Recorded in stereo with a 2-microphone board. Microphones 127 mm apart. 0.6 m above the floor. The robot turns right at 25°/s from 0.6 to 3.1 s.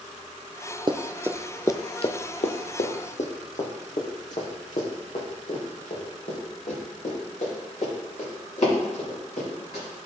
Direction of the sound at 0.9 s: 40° right (ahead or behind).